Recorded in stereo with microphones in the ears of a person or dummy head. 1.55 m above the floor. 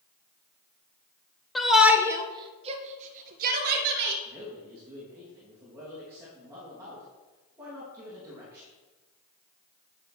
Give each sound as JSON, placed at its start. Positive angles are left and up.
{"t": 1.6, "sound": "a shout", "side_deg": 0, "distance_m": 1.0}
{"t": 4.2, "sound": "a man speaking", "side_deg": -15, "distance_m": 2.5}